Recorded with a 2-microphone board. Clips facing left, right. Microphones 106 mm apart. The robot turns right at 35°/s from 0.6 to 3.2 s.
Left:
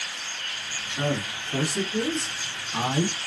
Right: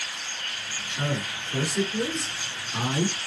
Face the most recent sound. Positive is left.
turn(degrees=155)